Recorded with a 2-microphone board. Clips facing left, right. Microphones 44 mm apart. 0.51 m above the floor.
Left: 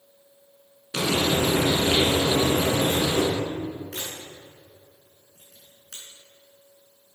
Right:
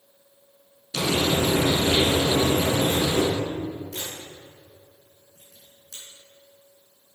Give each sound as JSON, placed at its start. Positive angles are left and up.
{"t": 0.9, "sound": "frying", "side_deg": 35, "distance_m": 4.0}
{"t": 3.9, "sound": "a camera shutter", "side_deg": 75, "distance_m": 4.5}